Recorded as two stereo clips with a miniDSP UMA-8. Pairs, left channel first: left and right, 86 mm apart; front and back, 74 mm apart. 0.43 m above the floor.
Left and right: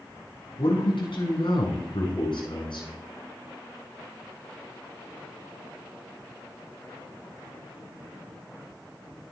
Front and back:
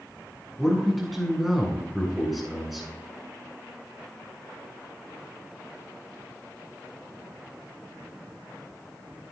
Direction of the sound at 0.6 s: 90° left.